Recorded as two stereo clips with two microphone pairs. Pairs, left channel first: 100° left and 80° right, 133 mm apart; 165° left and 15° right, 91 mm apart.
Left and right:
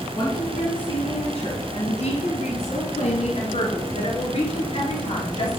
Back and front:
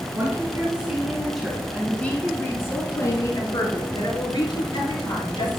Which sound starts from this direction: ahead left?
A woman speaking, at 0.1 s.